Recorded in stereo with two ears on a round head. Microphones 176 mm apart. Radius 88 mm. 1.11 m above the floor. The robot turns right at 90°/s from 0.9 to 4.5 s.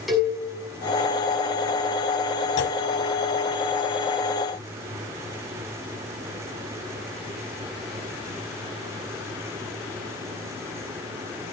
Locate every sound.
0.1 s a cowbell: centre (ahead or behind), 6 m
2.6 s a clunk: 60° left (ahead or behind), 1.1 m